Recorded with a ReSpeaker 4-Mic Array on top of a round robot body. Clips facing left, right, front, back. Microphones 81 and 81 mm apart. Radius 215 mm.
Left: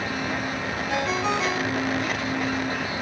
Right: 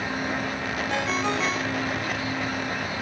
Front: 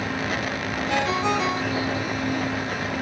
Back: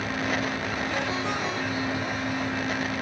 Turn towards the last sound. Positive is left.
turn(degrees=5)